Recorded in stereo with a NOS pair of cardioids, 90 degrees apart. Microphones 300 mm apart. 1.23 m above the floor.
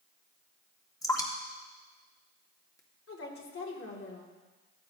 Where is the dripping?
10° left, 2 m.